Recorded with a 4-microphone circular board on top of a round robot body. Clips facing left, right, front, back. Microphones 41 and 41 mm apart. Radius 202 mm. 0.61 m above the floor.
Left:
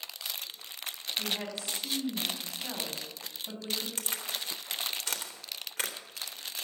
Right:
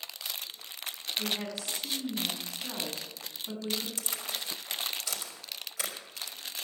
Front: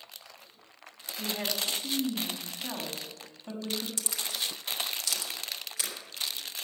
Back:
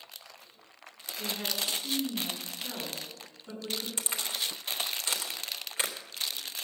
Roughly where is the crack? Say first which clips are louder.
Left 1 dB, back 1 dB; behind left.